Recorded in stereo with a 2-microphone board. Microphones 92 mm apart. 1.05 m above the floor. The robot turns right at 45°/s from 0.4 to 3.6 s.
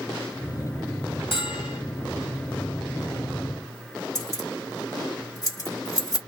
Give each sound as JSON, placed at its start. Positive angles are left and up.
{"t": 1.3, "sound": "a bell", "side_deg": 80, "distance_m": 1.1}
{"t": 4.2, "sound": "keys jangling", "side_deg": 40, "distance_m": 1.2}